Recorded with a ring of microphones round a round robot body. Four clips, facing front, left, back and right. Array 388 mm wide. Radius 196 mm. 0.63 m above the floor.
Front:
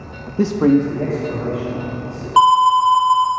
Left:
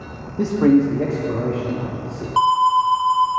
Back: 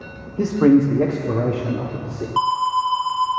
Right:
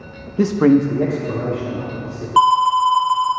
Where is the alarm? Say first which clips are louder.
Right 2 dB, front 8 dB; 30° right, 1.0 m.